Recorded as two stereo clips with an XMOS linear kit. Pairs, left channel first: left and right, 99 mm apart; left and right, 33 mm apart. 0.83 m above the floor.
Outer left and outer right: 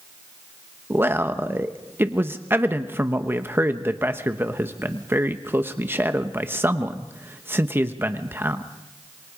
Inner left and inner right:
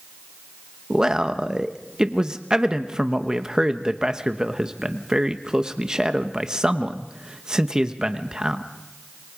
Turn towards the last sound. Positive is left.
turn(degrees=-20)  # may be behind; listen again after turning